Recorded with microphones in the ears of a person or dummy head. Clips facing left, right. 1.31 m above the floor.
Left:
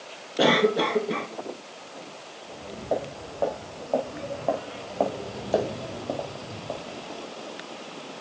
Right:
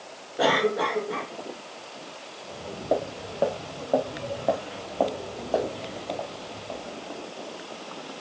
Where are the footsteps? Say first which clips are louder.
Right 3 dB; 45° right (ahead or behind), 5 m; by 7.3 s 55° left (ahead or behind), 4 m.